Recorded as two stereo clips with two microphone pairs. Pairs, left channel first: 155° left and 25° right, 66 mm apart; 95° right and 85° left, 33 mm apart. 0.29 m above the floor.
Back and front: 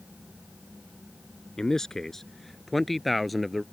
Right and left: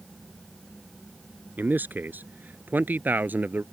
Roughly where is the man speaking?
Left.